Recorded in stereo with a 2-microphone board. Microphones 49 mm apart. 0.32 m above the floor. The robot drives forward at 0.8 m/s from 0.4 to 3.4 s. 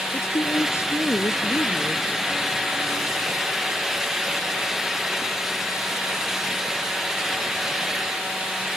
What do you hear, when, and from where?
0.1 s a woman speaking: 70° left (ahead or behind); by 2.1 s 60° left (ahead or behind)